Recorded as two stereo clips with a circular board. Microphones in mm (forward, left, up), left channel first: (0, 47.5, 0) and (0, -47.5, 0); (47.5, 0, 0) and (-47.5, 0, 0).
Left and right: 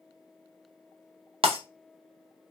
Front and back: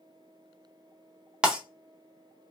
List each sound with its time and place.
1.4 s breaking glass: 100° right, 0.7 m